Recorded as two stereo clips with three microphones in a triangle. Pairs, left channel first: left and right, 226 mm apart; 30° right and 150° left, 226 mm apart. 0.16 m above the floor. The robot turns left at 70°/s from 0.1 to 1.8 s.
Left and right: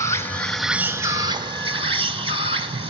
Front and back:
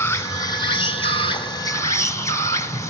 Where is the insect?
35° left, 0.8 m; by 2.9 s 85° right, 0.8 m.